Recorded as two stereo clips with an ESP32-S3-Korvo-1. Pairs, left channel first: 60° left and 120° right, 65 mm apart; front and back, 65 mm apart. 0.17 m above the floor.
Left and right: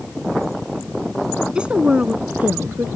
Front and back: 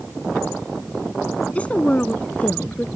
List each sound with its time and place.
1.6 s a woman speaking: 55° right; by 2.9 s 65° right